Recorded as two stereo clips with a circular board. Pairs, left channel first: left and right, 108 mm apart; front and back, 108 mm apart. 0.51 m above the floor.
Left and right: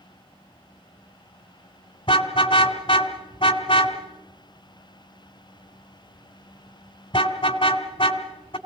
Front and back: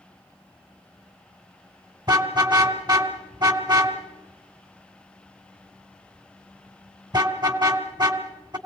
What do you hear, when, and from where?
2.1 s a car horn: 130° left, 2.5 m